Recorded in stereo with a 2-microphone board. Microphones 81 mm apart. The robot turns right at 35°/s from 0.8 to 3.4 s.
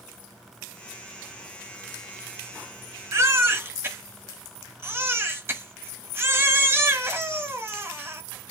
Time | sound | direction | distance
3.1 | a baby crying | 35° right (ahead or behind) | 1.1 m